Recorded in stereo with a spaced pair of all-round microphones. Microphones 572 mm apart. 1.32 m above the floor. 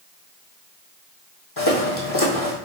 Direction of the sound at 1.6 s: 45° left (ahead or behind).